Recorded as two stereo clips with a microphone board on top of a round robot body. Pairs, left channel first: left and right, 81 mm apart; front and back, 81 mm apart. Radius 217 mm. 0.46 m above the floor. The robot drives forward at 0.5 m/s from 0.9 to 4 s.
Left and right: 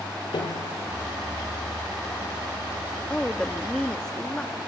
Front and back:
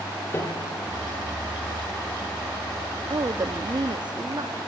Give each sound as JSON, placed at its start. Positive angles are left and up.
{"t": 0.3, "sound": "a piano", "azimuth_deg": 60, "distance_m": 3.5}
{"t": 3.1, "sound": "a woman speaking", "azimuth_deg": 165, "distance_m": 0.9}